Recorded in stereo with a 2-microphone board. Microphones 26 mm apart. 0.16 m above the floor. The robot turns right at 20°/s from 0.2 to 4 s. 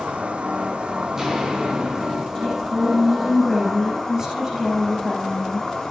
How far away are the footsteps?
About 6.5 m.